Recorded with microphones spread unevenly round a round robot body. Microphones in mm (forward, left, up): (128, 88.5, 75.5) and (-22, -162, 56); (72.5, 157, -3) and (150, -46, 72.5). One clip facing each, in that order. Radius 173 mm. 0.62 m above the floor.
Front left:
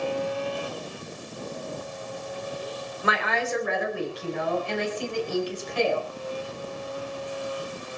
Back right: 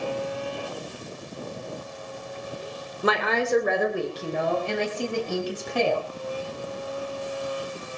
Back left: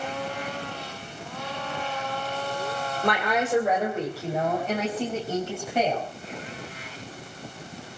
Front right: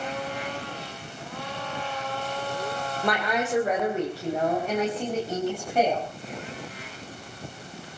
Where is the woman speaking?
165° right, 2.5 m.